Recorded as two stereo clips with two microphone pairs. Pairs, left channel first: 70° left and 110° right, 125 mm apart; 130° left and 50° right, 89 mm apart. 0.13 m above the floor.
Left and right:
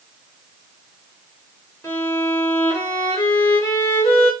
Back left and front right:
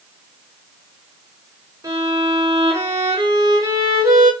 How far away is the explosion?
No explosion in this recording.